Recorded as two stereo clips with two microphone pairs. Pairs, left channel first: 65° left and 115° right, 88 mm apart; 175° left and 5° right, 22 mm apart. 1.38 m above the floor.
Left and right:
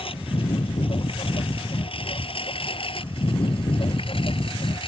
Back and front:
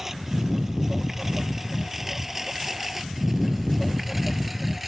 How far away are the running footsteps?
I don't hear running footsteps.